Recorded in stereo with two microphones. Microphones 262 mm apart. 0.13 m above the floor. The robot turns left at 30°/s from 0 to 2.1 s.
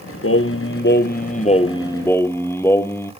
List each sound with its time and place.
0.2 s singing: 65° left, 0.6 m; by 3.1 s 10° left, 0.6 m